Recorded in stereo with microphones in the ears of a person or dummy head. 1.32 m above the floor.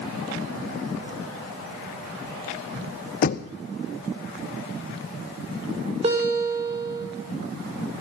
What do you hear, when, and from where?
3.2 s knocking: 45° left (ahead or behind), 0.7 m
6.0 s a guitar: 35° right (ahead or behind), 5.5 m